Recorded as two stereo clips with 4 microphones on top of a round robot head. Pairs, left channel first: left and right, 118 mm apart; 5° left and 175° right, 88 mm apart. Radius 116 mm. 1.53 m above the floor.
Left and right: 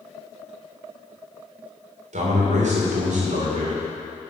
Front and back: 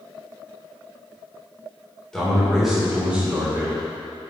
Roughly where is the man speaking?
Right.